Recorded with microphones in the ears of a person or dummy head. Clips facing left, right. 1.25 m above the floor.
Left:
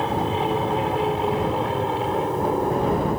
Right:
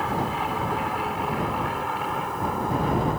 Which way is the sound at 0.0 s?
30° left (ahead or behind).